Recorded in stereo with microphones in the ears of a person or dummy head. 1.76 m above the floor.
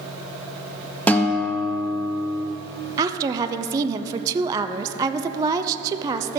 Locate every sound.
1.1 s a guitar: 15° left (ahead or behind), 1.0 m
3.0 s a woman speaking: 15° right (ahead or behind), 0.6 m